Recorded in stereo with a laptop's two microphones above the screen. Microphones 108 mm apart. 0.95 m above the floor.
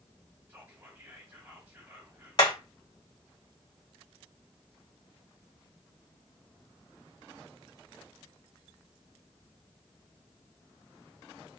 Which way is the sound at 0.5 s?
20° right (ahead or behind).